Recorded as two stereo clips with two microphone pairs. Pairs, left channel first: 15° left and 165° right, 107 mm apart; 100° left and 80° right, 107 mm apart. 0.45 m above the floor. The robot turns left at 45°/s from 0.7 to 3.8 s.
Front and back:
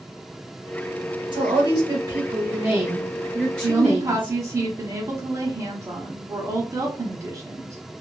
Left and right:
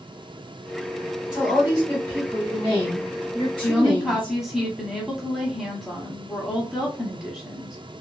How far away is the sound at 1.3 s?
About 1.2 m.